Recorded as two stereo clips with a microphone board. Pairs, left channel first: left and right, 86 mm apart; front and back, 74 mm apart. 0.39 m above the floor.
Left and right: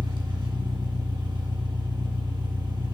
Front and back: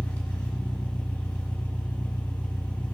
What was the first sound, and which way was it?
An engine running, 70° right.